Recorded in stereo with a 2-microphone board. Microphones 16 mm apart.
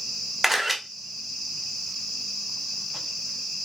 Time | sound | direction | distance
0.4 | a camera shutter | 5° right (ahead or behind) | 1.1 m